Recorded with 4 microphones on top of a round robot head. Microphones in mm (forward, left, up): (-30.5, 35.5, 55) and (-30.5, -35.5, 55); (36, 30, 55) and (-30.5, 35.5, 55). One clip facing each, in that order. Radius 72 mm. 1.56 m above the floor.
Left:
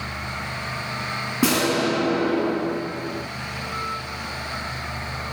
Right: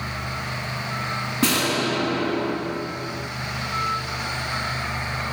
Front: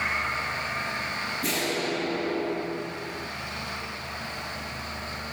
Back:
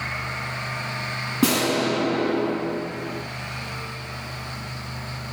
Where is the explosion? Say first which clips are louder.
Left 2 dB, back 10 dB; 165° left, 7.5 m.